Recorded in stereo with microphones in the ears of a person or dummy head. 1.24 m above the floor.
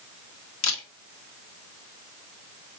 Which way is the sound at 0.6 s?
75° left (ahead or behind).